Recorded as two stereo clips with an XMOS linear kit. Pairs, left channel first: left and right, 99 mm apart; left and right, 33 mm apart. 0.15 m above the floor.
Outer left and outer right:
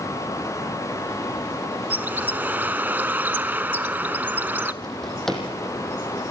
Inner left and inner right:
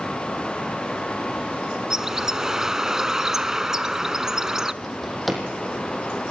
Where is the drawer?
5° left (ahead or behind), 3.5 m.